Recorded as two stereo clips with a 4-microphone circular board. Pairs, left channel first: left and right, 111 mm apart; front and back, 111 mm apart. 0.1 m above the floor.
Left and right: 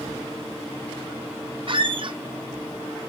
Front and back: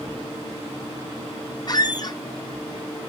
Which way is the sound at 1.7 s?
50° right.